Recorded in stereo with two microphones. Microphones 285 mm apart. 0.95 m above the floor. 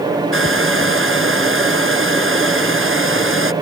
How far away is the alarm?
I don't hear an alarm.